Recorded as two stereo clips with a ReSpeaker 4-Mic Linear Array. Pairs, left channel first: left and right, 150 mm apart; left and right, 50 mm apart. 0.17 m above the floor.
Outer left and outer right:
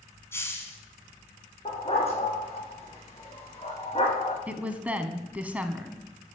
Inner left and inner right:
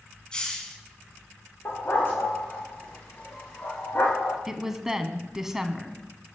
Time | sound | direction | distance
0.3 | a hiss | 15° left (ahead or behind) | 1.9 m
1.6 | a dog barking | 40° left (ahead or behind) | 3.5 m
4.5 | a woman speaking | 10° right (ahead or behind) | 1.2 m